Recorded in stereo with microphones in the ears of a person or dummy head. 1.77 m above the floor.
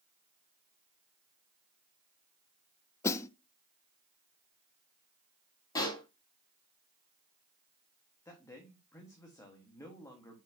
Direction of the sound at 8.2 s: 10° left (ahead or behind).